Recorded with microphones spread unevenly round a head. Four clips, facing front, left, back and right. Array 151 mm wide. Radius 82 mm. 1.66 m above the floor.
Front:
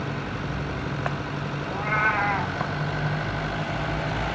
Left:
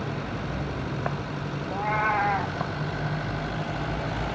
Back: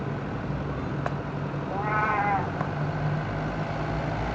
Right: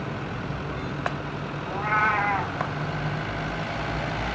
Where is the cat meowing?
120° right, 1.4 m.